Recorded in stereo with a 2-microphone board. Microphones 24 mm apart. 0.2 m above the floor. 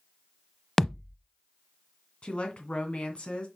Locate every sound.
0.8 s a thud: 10° left (ahead or behind), 0.6 m
2.2 s a woman speaking: 50° left (ahead or behind), 2.5 m